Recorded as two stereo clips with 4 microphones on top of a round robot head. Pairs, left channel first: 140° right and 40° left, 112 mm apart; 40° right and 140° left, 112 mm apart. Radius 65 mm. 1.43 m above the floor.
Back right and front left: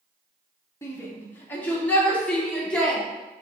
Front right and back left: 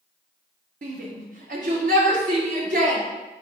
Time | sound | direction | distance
0.8 | a shout | 155° left | 1.9 m